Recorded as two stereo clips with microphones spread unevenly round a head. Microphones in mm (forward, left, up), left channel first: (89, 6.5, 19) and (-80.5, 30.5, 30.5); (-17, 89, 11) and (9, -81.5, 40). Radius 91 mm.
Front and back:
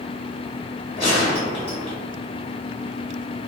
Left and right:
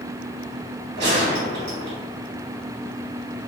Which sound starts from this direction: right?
A gunshot, at 1.0 s.